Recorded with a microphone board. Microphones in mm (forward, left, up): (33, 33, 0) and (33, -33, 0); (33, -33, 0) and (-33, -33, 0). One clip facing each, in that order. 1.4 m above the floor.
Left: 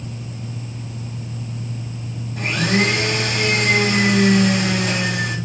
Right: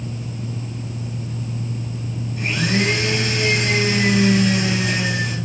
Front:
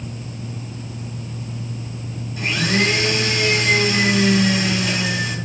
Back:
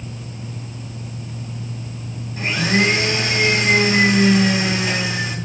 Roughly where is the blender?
Behind left.